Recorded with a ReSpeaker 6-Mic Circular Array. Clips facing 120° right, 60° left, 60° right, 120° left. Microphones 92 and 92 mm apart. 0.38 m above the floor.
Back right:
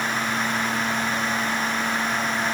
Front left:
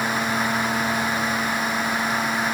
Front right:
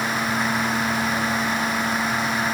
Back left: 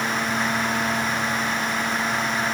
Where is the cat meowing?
I don't hear a cat meowing.